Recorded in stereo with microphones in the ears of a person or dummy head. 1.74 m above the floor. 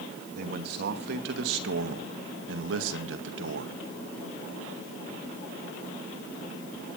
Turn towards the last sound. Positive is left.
turn(degrees=-70)  # may be behind; listen again after turning